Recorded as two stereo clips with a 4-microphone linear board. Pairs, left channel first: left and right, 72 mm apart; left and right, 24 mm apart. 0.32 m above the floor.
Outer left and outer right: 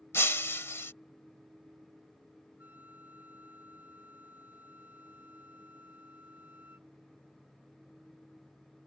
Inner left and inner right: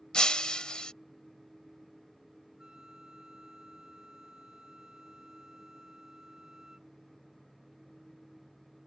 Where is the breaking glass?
35° left (ahead or behind).